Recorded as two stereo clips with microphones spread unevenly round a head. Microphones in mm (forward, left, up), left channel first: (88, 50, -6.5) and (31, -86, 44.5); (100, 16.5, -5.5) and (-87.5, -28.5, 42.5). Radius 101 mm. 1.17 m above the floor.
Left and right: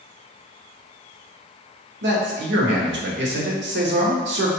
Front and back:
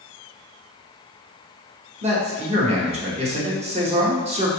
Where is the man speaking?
100° right, 0.8 m.